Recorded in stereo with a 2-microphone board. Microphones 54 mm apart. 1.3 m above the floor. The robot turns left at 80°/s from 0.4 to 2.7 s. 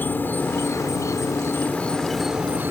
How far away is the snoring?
I don't hear snoring.